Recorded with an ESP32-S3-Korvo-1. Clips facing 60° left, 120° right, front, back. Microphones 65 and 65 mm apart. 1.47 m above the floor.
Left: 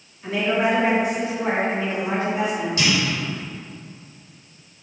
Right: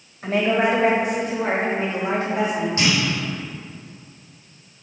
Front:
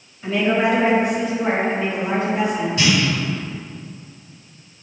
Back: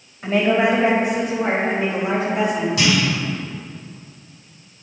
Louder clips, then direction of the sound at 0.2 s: Right 2 dB, back 1 dB; 150° right.